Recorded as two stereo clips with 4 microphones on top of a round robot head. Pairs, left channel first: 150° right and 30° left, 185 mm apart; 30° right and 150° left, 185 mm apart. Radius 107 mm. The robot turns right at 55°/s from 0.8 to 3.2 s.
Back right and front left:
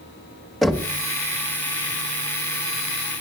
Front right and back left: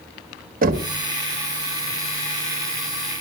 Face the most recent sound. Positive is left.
turn(degrees=-105)